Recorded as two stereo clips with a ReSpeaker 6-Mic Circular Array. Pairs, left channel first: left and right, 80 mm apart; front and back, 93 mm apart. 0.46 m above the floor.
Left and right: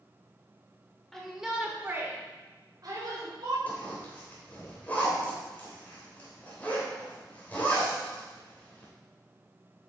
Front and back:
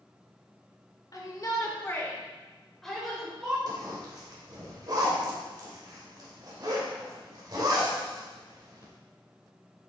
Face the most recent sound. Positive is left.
turn(degrees=150)